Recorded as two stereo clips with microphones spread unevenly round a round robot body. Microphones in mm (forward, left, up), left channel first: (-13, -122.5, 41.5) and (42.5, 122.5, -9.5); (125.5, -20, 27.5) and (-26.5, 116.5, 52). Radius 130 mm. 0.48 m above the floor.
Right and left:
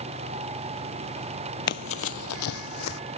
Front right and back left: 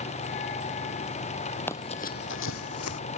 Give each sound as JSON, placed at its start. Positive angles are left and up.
{"t": 1.7, "sound": "running footsteps", "azimuth_deg": -130}